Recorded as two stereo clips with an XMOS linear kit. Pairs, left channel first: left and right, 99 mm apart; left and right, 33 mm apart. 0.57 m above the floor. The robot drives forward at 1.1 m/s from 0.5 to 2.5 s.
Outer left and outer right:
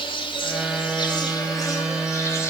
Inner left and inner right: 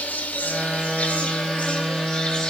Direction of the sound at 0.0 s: 60° left (ahead or behind).